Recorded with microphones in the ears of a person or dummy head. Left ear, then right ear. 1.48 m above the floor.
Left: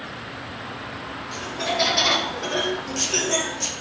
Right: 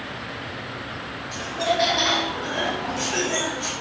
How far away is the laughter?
About 0.7 m.